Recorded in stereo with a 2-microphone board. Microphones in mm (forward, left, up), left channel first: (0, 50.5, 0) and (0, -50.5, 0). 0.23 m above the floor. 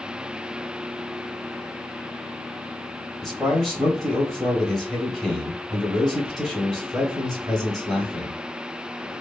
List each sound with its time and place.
3.2 s a man speaking: 5° left (ahead or behind), 1.0 m